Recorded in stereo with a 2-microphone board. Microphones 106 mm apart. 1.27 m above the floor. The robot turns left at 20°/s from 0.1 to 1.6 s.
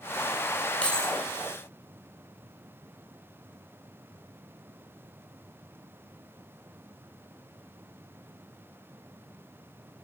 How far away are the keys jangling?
About 3.5 m.